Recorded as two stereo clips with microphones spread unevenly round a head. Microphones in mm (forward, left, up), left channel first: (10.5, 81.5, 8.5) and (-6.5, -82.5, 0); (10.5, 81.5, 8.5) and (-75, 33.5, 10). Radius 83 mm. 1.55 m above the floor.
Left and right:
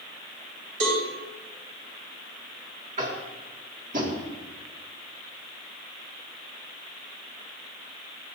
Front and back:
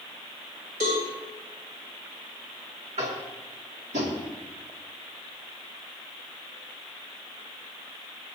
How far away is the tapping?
About 2 m.